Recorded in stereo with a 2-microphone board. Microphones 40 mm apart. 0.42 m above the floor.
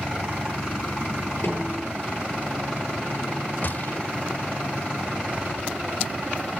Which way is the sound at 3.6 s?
50° left (ahead or behind).